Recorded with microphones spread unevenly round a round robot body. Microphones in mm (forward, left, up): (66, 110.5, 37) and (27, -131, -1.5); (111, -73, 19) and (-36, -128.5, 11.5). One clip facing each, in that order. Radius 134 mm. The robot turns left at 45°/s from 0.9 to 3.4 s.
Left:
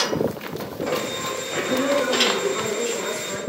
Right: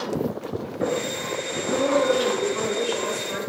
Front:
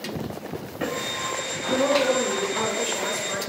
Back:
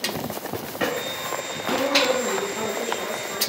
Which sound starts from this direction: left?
A woman speaking, at 1.7 s.